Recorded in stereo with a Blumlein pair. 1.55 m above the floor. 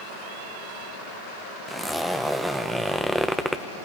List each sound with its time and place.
1.7 s a zipper: straight ahead, 1.1 m